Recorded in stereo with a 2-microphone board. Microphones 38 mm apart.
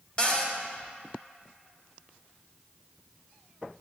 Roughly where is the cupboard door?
Left.